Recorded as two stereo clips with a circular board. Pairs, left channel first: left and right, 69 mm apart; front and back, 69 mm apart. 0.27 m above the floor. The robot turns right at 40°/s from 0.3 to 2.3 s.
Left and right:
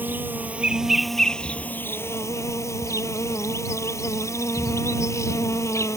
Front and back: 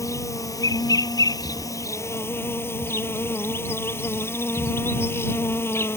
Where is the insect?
30° right; by 6.0 s 50° left.